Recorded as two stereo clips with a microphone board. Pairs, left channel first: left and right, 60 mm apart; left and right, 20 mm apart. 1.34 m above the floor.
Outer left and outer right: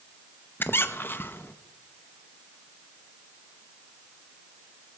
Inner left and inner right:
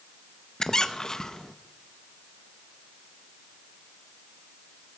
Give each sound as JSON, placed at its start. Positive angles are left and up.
{"t": 0.6, "sound": "a squeak", "side_deg": 35, "distance_m": 0.7}